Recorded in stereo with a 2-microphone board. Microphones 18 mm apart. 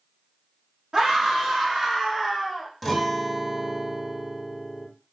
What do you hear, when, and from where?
0.9 s a scream: 45° right (ahead or behind), 1.1 m; by 2.7 s 15° right (ahead or behind), 1.3 m
2.8 s a guitar: 5° right (ahead or behind), 0.7 m